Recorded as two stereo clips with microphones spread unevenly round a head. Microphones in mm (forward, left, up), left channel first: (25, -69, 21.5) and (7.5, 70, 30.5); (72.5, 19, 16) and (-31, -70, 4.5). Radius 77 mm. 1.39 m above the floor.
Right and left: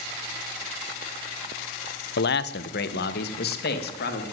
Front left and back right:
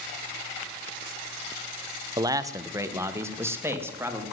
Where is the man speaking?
75° right, 0.9 m; by 4.2 s 65° right, 3 m.